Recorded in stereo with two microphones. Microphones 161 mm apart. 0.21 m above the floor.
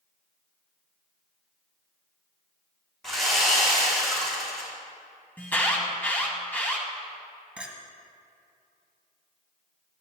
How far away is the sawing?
About 3 m.